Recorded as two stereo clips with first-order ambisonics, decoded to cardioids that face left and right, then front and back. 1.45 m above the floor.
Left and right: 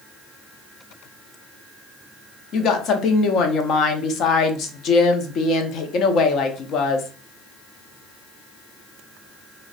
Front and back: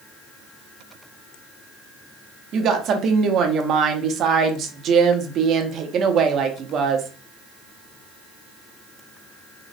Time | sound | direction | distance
2.5 | a woman speaking | 135° left | 0.5 m